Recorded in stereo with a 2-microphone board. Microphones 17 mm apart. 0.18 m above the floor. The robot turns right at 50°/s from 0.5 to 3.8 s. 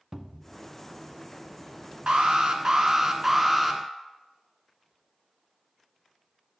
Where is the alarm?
85° right, 1.5 m; by 3.8 s 5° left, 1.5 m.